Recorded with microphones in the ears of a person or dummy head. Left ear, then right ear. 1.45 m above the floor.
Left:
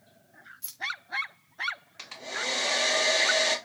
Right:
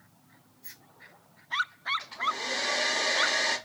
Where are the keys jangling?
60° left (ahead or behind), 0.5 m.